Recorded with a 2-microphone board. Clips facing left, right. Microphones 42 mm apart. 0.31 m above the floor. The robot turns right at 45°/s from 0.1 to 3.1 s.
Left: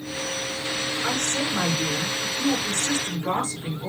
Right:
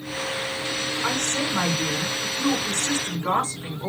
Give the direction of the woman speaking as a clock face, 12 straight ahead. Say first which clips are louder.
Right 1 dB; 5 o'clock.